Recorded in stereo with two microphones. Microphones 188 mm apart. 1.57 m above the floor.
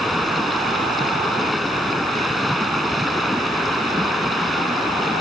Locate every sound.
0.0 s running water: centre (ahead or behind)